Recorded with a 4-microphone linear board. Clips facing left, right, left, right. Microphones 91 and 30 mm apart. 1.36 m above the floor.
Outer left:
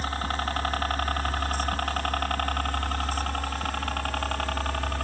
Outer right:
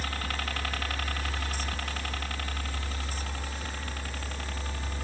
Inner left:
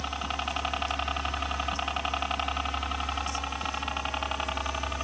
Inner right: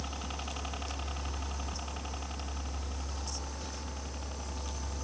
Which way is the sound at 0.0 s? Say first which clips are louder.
Outer left 6 dB, inner left 9 dB; 35° left (ahead or behind).